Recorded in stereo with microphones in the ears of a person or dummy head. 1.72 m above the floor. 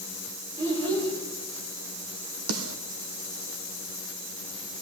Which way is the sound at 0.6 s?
15° right (ahead or behind).